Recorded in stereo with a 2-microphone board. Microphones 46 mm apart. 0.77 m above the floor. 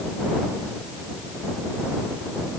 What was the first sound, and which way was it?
Only background noise.